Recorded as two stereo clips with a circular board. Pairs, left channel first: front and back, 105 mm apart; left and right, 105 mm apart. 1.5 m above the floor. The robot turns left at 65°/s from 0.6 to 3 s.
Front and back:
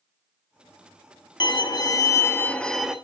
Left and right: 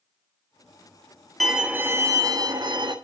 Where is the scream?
No scream in this recording.